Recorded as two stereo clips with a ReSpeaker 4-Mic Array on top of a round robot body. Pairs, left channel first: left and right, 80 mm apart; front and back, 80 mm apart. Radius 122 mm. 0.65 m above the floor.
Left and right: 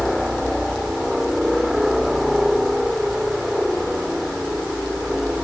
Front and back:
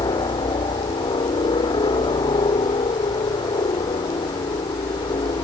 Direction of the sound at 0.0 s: 5° right.